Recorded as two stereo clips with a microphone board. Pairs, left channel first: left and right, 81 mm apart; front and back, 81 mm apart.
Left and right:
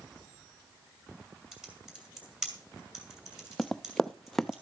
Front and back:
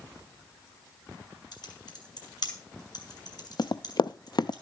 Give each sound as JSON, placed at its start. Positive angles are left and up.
{"t": 1.5, "sound": "typing on a keyboard", "azimuth_deg": -5, "distance_m": 2.5}
{"t": 3.6, "sound": "running footsteps", "azimuth_deg": 5, "distance_m": 0.6}